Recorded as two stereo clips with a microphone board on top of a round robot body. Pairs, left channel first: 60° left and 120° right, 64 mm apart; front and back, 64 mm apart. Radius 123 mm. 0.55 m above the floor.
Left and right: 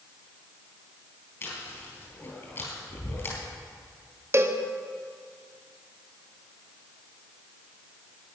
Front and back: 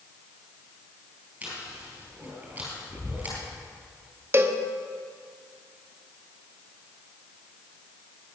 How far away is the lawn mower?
No lawn mower in this recording.